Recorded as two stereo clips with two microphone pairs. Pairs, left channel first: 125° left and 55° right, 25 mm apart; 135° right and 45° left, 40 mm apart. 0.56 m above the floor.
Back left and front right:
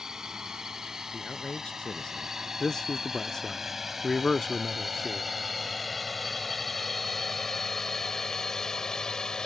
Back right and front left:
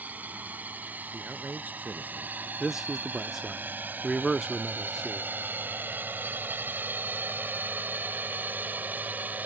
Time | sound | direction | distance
0.0 | a drone | 5° left | ?
1.1 | a man speaking | 85° left | ?
2.6 | a man speaking | 115° left | ?